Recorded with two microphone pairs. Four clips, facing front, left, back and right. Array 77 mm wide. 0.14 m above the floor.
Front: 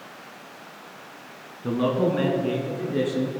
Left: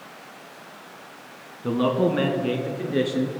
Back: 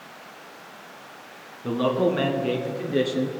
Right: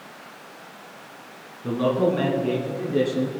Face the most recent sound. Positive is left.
turn(degrees=130)